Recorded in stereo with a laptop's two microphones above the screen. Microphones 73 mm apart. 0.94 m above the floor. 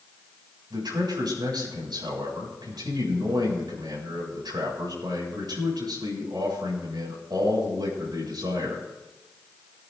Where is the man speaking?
70° right (ahead or behind), 6.5 m.